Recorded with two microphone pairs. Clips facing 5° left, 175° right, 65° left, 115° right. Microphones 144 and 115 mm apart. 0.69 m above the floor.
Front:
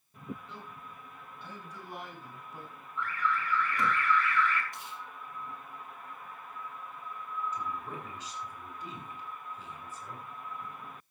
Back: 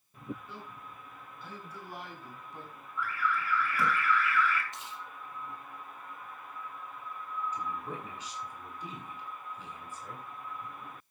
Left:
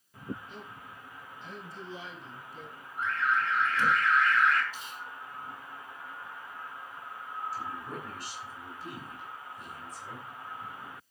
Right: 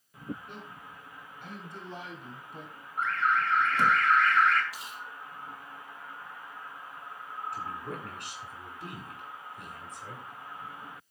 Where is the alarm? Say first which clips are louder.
Even, right 2 dB; 90° right, 4.5 m.